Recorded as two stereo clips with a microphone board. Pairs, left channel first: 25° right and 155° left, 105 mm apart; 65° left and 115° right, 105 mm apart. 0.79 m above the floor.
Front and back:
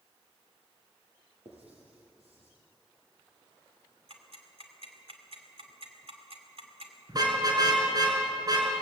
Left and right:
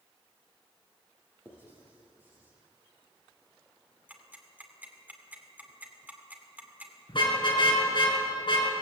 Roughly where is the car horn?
Left.